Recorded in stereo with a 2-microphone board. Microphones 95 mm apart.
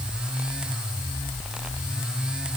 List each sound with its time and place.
Only background noise.